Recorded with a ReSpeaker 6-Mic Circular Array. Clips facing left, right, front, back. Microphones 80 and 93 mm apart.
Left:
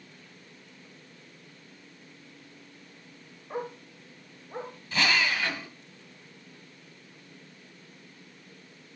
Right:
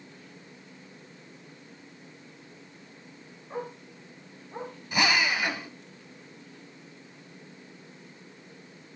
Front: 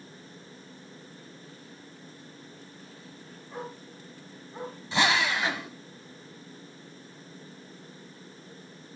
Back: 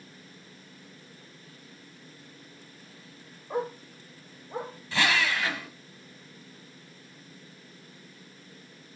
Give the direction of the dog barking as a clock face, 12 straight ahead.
6 o'clock.